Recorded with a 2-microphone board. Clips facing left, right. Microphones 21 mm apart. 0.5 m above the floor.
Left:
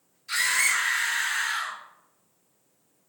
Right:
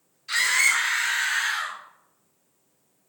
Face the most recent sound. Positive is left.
turn(degrees=-55)  # may be behind; listen again after turning